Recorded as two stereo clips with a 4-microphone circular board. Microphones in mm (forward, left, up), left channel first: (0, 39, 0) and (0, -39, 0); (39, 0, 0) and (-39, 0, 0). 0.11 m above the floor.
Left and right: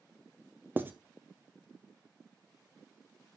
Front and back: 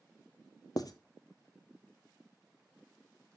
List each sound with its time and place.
0.8 s writing: 30° right, 0.8 m